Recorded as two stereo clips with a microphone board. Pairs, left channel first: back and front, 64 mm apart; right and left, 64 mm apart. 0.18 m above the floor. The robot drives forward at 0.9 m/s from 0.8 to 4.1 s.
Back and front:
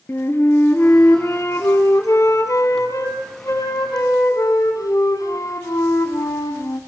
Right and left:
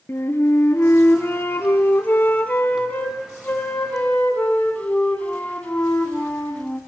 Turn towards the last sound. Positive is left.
turn(degrees=-160)